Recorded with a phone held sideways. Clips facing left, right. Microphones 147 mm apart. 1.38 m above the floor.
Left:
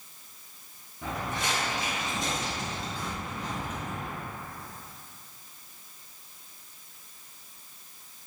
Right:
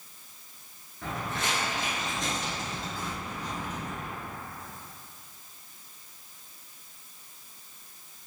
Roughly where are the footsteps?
Centre.